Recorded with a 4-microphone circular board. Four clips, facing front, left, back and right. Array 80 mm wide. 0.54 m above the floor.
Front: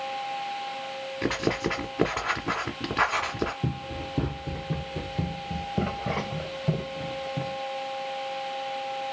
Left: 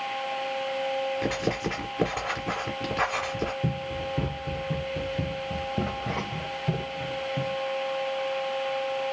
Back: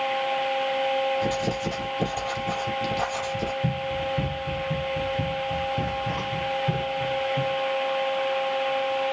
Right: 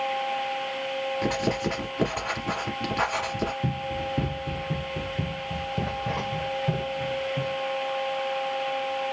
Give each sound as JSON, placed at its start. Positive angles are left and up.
{"t": 1.2, "sound": "writing", "azimuth_deg": -5, "distance_m": 1.6}
{"t": 3.6, "sound": "running footsteps", "azimuth_deg": -5, "distance_m": 1.5}